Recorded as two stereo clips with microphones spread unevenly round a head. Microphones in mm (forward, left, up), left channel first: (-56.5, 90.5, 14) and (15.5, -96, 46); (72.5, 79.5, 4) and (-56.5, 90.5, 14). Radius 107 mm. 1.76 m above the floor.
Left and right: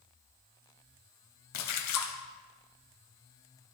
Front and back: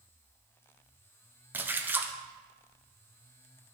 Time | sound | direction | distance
1.5 | a splash | 100° left | 1.0 m